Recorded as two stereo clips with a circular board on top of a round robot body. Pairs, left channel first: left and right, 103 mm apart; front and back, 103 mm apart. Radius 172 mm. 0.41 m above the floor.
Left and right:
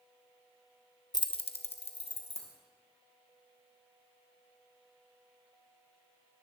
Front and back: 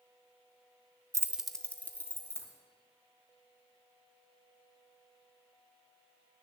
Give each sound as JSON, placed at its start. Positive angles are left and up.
{"t": 1.1, "sound": "keys jangling", "azimuth_deg": 130, "distance_m": 0.6}